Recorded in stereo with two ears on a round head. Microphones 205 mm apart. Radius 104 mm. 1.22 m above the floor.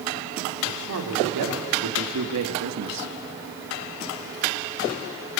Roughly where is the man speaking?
Right.